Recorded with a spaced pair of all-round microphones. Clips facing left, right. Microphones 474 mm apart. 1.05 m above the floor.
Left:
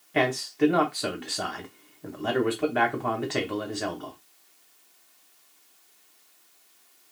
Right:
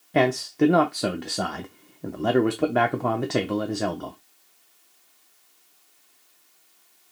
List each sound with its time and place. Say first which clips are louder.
0.1 s a man speaking: right 4 dB; 65° right (ahead or behind), 0.5 m